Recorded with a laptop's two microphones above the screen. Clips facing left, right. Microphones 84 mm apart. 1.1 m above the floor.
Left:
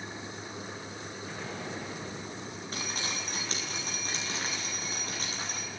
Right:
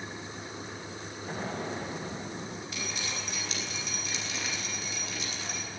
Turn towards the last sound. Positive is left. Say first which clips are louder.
# left 4 dB
turn(degrees=40)  # may be behind; listen again after turning